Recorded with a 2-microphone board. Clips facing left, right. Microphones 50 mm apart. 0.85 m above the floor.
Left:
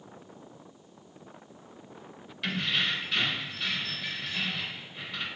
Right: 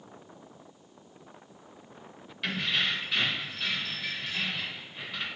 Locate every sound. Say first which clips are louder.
2.4 s keys jangling: even; centre (ahead or behind), 0.5 m